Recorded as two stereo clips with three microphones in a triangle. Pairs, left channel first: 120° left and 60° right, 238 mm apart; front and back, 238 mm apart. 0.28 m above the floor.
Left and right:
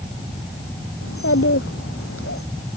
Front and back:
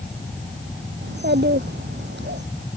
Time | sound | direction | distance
1.0 | a child speaking | 140° left | ?